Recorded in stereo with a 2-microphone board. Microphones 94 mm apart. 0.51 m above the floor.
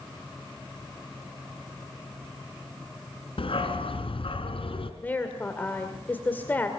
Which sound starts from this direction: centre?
A woman speaking, at 5.0 s.